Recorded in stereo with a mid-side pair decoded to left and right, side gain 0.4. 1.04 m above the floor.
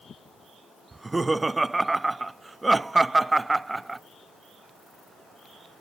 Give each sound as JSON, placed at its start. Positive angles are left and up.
{"t": 0.9, "sound": "laughter", "azimuth_deg": -25, "distance_m": 0.6}